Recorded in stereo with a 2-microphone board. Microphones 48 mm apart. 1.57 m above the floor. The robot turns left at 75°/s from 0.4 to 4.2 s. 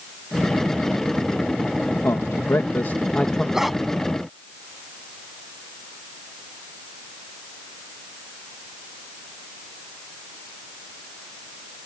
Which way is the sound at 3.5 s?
10° right (ahead or behind).